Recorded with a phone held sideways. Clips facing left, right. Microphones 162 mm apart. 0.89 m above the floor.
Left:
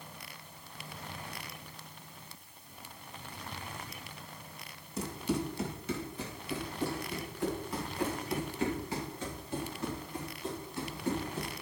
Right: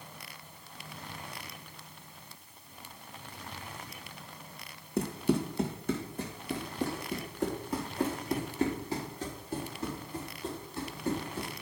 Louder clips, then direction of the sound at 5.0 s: Right 5 dB; 60° right (ahead or behind).